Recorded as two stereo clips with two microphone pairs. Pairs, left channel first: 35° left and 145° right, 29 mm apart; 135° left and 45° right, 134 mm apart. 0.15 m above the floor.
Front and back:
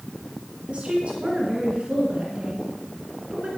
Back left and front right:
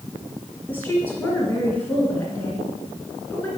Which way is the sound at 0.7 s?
155° right.